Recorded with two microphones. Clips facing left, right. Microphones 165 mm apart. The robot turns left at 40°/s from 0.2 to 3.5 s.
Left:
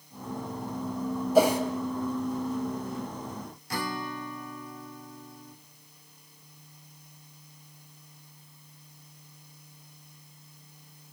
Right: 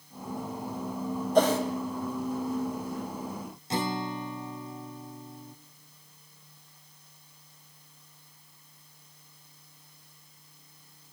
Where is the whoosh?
5° left (ahead or behind), 2.5 m; by 1.6 s 15° left (ahead or behind), 2.5 m.